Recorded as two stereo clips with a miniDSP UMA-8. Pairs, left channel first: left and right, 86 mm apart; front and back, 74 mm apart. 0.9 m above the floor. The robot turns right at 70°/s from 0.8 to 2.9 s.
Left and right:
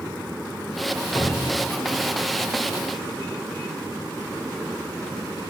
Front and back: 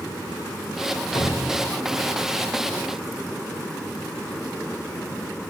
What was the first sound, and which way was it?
A cupboard door, 30° left.